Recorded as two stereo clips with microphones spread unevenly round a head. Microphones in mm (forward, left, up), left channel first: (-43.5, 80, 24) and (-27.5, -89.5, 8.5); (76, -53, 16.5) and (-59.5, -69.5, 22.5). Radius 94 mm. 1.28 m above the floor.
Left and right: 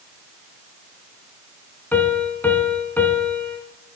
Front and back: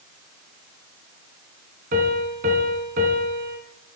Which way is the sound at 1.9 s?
170° left.